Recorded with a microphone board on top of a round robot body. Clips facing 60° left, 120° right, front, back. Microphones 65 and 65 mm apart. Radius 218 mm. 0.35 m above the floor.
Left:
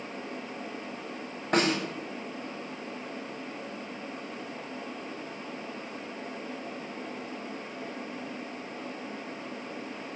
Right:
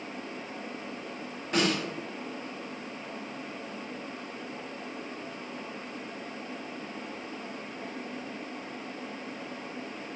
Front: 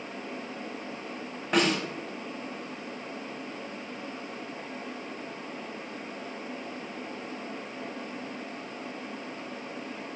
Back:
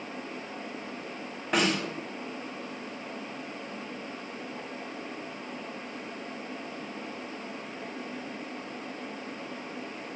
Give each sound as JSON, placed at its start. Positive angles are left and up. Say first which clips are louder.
{"t": 1.5, "sound": "a snare drum", "louder": "left 2 dB, front 1 dB", "azimuth_deg": 90, "distance_m": 3.5}